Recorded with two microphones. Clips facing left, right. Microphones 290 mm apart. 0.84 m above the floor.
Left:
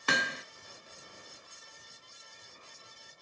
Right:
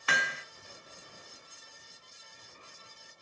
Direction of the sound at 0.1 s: 50° left (ahead or behind).